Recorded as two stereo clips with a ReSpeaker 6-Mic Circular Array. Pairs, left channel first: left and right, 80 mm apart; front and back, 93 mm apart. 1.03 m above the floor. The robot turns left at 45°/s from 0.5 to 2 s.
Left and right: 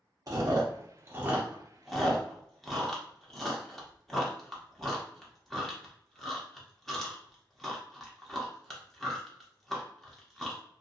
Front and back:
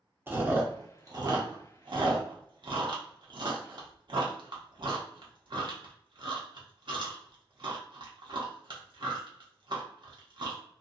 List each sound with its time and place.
0.3 s chewing: 115° right, 0.8 m; by 10.6 s 175° left, 0.8 m